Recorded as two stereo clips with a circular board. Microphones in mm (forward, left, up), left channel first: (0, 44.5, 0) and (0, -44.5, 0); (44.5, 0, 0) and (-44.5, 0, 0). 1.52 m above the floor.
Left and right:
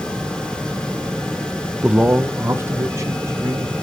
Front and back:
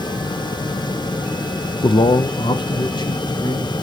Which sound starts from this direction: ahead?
A man speaking, at 1.8 s.